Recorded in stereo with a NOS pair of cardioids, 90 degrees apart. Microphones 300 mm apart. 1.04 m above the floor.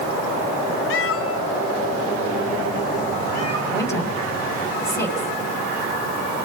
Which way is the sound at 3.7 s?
10° left.